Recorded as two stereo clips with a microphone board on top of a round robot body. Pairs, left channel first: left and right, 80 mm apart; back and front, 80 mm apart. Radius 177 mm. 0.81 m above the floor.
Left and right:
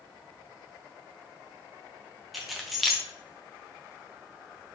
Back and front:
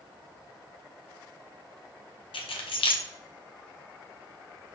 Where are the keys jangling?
175° right, 0.7 m.